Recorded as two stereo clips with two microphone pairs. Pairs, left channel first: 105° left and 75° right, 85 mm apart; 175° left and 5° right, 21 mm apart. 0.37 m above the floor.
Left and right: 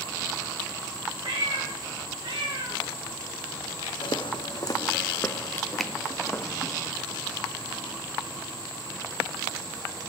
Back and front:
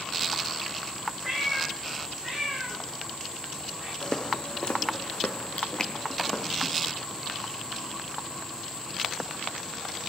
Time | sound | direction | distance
1.2 | a cat meowing | 95° right | 9 m
4.0 | footsteps | 110° left | 1.3 m
5.8 | a finger snap | 170° right | 0.7 m